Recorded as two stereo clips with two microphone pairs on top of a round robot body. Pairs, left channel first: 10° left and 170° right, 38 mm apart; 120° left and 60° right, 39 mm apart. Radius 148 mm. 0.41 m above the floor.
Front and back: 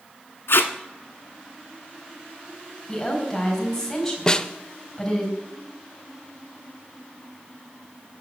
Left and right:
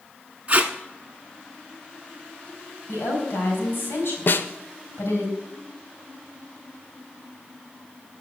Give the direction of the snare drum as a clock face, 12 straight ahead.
9 o'clock.